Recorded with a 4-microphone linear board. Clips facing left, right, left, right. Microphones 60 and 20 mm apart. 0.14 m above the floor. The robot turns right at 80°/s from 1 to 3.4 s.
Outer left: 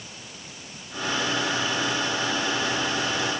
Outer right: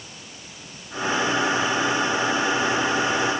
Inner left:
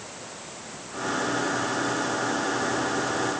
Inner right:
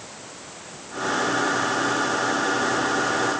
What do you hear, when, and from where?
Only background noise.